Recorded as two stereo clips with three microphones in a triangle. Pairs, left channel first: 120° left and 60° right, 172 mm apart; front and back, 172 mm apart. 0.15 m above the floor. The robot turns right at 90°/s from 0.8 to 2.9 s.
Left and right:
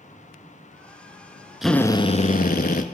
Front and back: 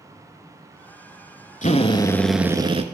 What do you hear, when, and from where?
1.6 s a drill: 25° left, 0.8 m; by 2.8 s 140° left, 0.8 m